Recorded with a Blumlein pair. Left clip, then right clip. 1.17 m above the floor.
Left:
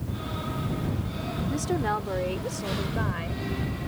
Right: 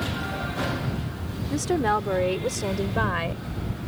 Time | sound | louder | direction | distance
1.5 | a woman speaking | right 5 dB | 15° right | ?